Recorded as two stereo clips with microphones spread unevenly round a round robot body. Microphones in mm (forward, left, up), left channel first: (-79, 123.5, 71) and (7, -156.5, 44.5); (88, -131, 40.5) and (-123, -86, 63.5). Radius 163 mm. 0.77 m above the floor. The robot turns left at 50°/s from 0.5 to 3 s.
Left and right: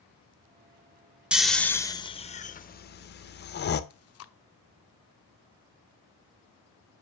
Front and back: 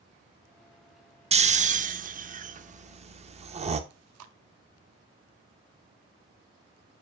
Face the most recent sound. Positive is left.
turn(degrees=150)